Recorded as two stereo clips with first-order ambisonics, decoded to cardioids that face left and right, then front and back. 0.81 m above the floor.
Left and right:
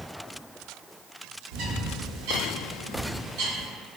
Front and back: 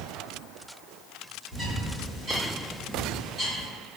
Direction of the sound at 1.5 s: 105° right.